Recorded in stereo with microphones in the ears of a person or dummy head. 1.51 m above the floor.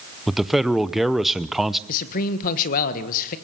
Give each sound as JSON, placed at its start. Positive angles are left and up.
{"t": 0.3, "sound": "a man speaking", "side_deg": 0, "distance_m": 0.7}
{"t": 1.9, "sound": "a man speaking", "side_deg": 45, "distance_m": 1.6}